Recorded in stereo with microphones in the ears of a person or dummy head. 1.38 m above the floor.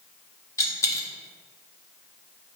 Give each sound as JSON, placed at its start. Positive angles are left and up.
{"t": 0.6, "sound": "a dropped coin", "side_deg": 20, "distance_m": 1.7}